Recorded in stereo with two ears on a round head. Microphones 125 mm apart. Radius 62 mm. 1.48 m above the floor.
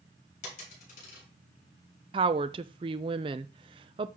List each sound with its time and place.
0.4 s a dropped coin: 60° left (ahead or behind), 4 m
2.1 s a woman speaking: 35° right (ahead or behind), 0.5 m